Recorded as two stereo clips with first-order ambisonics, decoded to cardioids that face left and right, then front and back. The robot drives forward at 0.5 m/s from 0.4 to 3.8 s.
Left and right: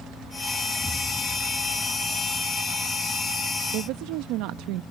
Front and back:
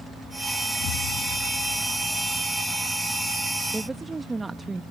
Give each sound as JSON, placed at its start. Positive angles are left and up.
{"t": 0.8, "sound": "an explosion", "azimuth_deg": 10}
{"t": 3.7, "sound": "a woman speaking", "azimuth_deg": -100}